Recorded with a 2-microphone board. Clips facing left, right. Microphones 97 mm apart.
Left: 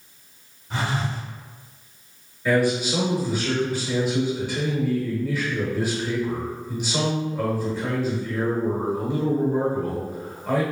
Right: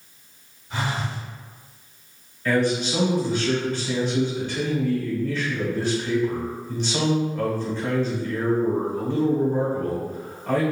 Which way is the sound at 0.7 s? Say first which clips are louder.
Left 1 dB; 40° left (ahead or behind).